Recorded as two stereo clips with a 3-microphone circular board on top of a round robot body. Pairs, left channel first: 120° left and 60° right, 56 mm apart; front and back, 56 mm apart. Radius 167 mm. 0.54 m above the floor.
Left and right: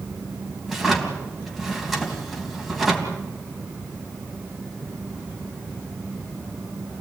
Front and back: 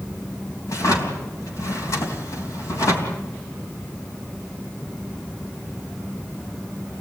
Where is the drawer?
30° left, 3.5 m.